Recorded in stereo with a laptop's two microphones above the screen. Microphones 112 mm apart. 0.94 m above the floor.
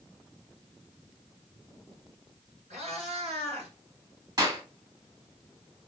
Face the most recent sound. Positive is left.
turn(degrees=-40)  # may be behind; listen again after turning